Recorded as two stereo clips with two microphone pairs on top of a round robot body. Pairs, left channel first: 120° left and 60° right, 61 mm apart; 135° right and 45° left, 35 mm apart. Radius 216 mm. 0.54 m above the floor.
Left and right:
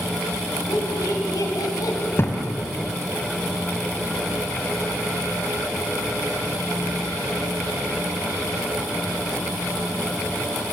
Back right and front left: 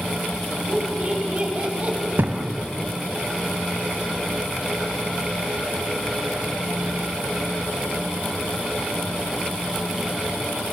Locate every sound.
0.7 s laughter: 105° left, 5 m; by 2.0 s 95° left, 4 m
2.2 s a thud: 70° left, 2.5 m